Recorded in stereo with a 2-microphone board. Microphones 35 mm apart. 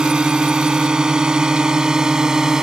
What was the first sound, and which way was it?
A drone, 25° right (ahead or behind).